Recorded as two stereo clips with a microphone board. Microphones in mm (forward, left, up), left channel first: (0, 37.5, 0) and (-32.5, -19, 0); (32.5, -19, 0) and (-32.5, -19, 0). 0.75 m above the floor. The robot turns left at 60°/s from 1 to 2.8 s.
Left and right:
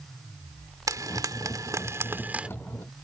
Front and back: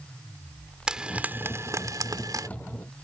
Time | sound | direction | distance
0.9 | frying | 105° right | ?